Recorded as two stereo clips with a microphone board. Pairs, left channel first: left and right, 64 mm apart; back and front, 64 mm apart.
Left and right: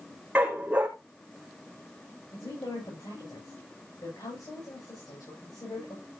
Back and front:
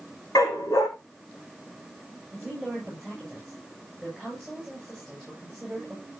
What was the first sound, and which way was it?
A dog barking, 160° right.